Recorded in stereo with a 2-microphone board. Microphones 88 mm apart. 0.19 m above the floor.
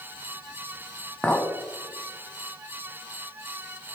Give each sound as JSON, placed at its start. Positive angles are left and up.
{"t": 1.2, "sound": "a clink", "side_deg": 15, "distance_m": 0.7}